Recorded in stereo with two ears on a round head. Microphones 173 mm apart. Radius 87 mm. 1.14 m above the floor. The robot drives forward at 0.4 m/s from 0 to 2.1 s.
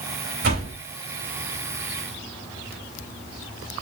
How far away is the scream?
I don't hear a scream.